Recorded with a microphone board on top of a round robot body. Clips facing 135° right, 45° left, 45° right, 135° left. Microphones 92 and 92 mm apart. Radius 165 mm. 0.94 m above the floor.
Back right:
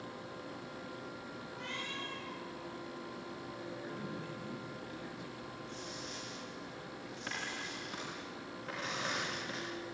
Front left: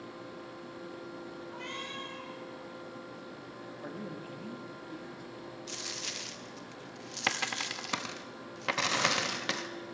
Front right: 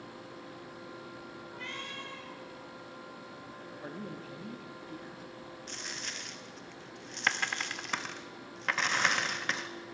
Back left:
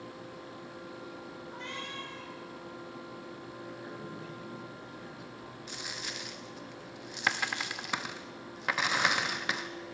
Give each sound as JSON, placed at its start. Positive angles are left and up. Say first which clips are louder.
{"t": 1.5, "sound": "a cat meowing", "louder": "even, back left 2 dB", "azimuth_deg": 70, "distance_m": 6.0}
{"t": 3.8, "sound": "a man speaking", "louder": "front left 1 dB, even", "azimuth_deg": 5, "distance_m": 2.5}
{"t": 5.7, "sound": "a dropped coin", "louder": "front left 1 dB, back left 3 dB", "azimuth_deg": 55, "distance_m": 0.5}